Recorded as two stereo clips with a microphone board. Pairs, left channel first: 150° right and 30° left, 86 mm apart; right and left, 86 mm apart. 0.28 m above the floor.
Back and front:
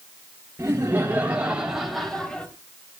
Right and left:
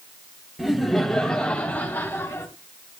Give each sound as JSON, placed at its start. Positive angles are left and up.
{"t": 0.6, "sound": "laughter", "azimuth_deg": 5, "distance_m": 1.8}